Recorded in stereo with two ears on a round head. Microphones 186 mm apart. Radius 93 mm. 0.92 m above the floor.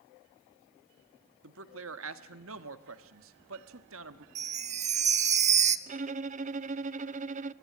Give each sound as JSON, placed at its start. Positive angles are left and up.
{"t": 1.4, "sound": "a man speaking", "side_deg": -70, "distance_m": 1.5}
{"t": 4.3, "sound": "a chime", "side_deg": -35, "distance_m": 0.9}
{"t": 5.9, "sound": "a violin", "side_deg": -35, "distance_m": 0.6}